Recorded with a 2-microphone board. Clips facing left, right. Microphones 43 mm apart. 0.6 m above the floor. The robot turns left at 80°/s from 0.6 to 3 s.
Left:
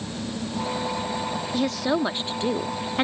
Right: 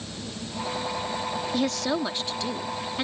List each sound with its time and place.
1.5 s a woman speaking: 175° right; by 3.0 s 65° left